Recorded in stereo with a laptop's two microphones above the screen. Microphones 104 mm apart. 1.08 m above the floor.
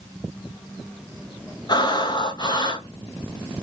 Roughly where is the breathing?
Left.